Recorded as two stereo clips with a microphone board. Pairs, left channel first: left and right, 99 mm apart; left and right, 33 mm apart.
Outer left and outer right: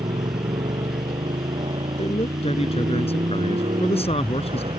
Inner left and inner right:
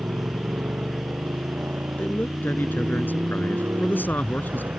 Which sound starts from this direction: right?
A motorcycle, at 0.0 s.